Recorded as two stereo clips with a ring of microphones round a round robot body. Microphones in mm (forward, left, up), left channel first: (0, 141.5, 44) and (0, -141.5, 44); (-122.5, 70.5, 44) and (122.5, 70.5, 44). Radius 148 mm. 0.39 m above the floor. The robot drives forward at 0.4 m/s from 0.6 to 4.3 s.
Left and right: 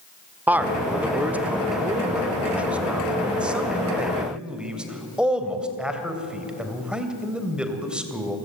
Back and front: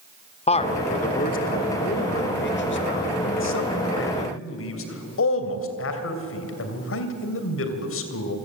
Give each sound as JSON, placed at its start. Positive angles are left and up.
{"t": 0.5, "sound": "a man speaking", "azimuth_deg": -165, "distance_m": 1.3}